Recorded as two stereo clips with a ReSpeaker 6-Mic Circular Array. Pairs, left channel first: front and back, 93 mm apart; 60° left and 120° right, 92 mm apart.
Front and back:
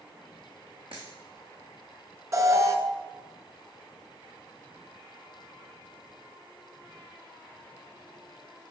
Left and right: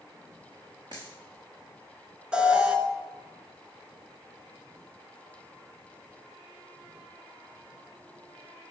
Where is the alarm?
170° left, 1.1 m.